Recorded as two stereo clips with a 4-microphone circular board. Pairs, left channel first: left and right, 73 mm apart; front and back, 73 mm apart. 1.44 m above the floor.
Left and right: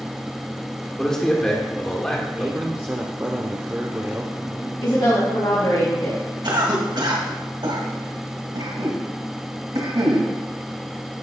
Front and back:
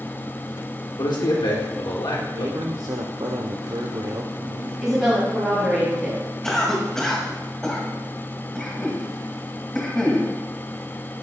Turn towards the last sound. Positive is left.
turn(degrees=-85)